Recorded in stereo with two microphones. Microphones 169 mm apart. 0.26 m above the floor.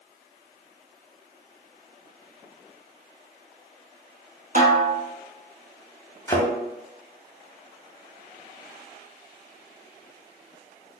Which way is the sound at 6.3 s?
20° left (ahead or behind).